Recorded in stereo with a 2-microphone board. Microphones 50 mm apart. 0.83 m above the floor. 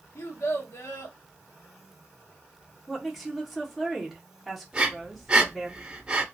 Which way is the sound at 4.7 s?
20° right (ahead or behind).